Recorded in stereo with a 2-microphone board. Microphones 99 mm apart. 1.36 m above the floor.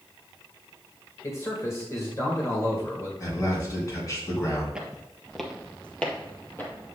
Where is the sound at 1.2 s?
35° left (ahead or behind), 1.6 m.